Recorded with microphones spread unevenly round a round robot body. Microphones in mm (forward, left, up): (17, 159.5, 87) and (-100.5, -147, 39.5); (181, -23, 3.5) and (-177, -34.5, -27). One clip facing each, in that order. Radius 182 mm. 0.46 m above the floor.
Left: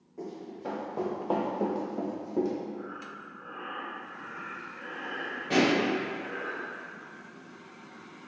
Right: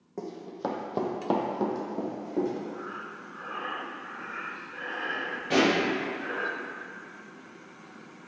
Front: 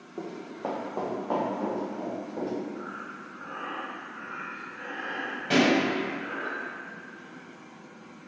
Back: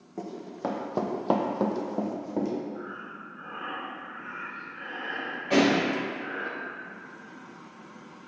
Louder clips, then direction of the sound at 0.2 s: Right 3 dB, back 1 dB; 110° right.